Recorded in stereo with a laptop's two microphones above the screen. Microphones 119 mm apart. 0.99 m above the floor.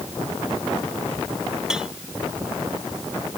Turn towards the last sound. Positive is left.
turn(degrees=-5)  # may be behind; listen again after turning